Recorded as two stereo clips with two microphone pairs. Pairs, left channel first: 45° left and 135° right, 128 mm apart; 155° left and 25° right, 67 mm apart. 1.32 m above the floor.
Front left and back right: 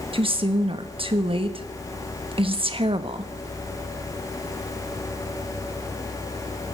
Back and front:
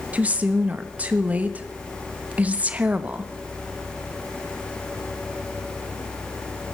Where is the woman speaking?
90° right, 1.3 m.